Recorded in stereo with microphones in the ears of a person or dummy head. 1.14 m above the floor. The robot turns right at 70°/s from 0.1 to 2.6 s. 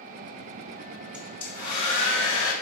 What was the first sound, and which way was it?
A hair dryer, 5° right.